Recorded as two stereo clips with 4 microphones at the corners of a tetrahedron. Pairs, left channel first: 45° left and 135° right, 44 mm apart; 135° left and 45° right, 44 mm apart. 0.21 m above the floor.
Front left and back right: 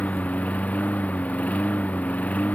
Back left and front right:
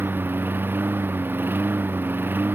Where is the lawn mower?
10° right.